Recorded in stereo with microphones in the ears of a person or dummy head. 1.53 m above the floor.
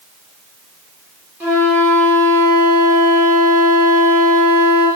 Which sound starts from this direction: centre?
A flute, at 1.4 s.